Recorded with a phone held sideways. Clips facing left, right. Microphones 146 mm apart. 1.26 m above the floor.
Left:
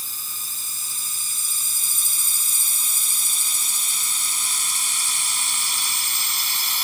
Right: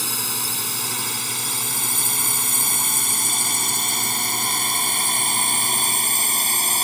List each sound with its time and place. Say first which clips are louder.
0.0 s a drone: right 14 dB; 80° right; by 6.8 s 50° right (ahead or behind)